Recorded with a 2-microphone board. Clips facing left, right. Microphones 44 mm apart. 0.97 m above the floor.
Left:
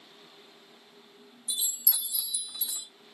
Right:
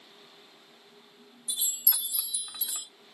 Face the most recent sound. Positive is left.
turn(degrees=-60)  # may be behind; listen again after turning